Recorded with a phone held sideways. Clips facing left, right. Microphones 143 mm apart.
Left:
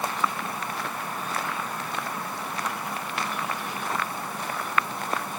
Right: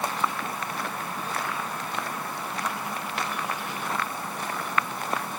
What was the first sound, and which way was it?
Only background noise.